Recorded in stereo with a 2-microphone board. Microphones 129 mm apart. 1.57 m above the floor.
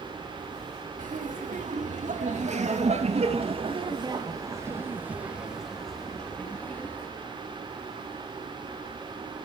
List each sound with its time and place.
1.0 s laughter: 85° right, 4 m; by 7.1 s 15° left (ahead or behind), 4 m